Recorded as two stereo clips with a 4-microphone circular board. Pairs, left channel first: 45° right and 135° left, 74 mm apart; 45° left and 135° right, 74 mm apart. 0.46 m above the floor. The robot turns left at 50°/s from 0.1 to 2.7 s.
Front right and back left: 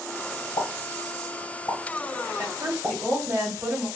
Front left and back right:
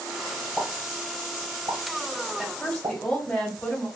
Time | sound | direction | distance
0.6 | a pop | 45° right | 1.6 m
2.4 | a woman speaking | 135° left | 1.7 m